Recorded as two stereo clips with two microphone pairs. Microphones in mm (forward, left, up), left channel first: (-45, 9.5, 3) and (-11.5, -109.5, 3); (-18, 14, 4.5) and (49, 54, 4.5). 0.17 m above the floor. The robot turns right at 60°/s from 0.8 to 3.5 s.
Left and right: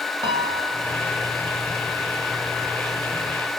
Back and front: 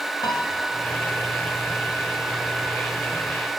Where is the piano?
125° right, 2.5 m; by 0.9 s 120° right, 2.5 m.